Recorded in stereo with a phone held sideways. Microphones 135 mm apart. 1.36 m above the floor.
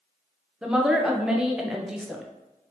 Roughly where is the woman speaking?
Centre.